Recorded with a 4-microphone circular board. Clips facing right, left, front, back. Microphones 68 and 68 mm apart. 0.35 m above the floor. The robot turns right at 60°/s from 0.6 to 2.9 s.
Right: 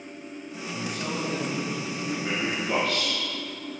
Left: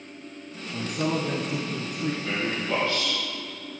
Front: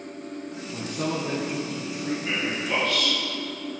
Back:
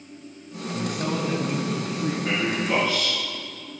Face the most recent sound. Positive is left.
turn(degrees=-95)